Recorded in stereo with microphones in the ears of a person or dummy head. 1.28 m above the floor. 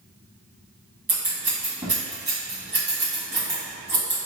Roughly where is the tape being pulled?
No tape being pulled in this recording.